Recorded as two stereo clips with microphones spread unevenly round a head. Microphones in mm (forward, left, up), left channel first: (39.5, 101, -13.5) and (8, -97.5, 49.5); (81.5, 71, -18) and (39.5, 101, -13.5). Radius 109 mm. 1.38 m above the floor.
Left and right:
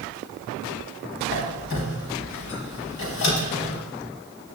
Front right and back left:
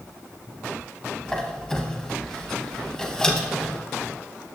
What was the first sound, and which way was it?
A squeak, 50° left.